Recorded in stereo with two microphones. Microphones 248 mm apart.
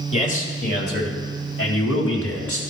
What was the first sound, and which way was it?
A man speaking, 30° left (ahead or behind).